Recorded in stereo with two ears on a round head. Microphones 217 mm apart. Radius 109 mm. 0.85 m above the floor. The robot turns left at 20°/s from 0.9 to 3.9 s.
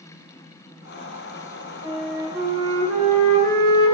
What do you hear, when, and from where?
1.8 s a flute: 165° right, 1.8 m; by 4.0 s 155° left, 1.8 m